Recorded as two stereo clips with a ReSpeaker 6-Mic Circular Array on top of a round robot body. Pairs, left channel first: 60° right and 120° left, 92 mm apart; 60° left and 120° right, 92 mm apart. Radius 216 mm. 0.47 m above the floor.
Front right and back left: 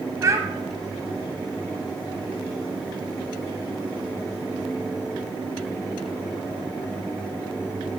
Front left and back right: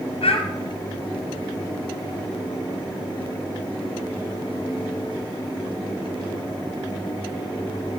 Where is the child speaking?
65° left, 0.7 m.